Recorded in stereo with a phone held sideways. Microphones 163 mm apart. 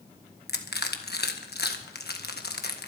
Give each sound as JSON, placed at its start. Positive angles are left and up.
{"t": 0.5, "sound": "crushing", "side_deg": 75, "distance_m": 1.4}